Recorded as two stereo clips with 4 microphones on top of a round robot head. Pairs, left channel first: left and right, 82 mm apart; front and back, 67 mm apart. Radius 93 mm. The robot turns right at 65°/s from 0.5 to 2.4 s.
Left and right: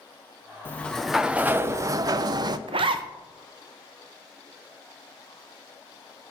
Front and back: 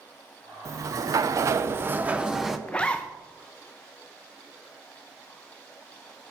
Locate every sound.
0.7 s a sliding door: 155° left, 0.6 m; by 2.6 s 95° right, 0.6 m
2.7 s a zipper: 75° right, 0.6 m